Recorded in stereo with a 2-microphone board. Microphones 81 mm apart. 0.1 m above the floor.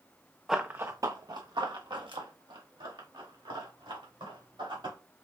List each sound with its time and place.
0.5 s running footsteps: 5° right (ahead or behind), 0.5 m; by 5.0 s 90° right, 3.5 m